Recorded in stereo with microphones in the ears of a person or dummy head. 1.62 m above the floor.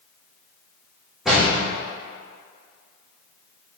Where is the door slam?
5° right (ahead or behind), 1.8 m.